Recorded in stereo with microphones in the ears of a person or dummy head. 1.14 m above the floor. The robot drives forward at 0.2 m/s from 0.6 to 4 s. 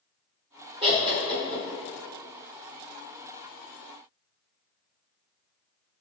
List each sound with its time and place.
0.8 s laughter: 20° right (ahead or behind), 0.7 m